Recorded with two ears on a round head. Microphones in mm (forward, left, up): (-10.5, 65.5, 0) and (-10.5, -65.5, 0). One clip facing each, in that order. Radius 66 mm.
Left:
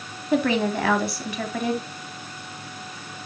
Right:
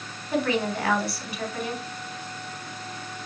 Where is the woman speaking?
70° left (ahead or behind), 3 m.